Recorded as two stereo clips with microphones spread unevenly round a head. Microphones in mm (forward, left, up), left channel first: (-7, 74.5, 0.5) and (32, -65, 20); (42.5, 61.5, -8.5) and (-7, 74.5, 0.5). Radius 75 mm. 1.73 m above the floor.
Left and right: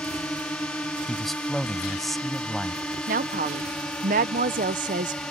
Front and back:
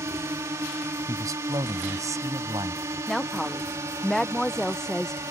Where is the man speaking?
165° right.